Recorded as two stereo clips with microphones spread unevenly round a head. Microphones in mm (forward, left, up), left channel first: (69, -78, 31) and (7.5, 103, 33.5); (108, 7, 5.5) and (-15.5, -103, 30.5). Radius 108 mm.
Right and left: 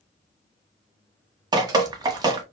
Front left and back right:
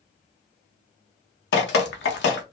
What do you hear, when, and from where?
1.5 s dripping: 40° left, 1.5 m